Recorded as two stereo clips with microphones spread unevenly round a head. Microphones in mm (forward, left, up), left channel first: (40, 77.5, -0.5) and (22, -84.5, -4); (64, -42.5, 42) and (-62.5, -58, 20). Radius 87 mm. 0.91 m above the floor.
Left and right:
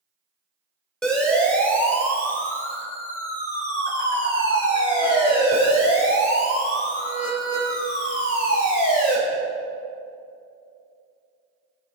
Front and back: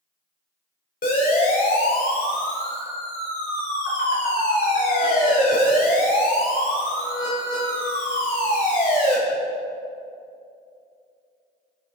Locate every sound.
1.0 s a siren: straight ahead, 4.5 m; by 9.2 s 45° left, 6 m